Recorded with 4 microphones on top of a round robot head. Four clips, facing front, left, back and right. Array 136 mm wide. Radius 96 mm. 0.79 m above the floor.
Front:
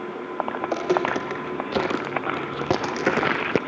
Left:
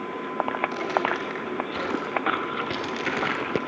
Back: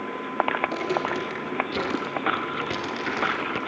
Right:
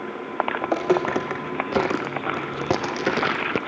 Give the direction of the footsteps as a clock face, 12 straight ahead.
2 o'clock.